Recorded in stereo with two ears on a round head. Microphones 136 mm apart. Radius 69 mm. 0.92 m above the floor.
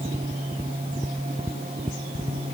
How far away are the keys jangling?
No keys jangling in this recording.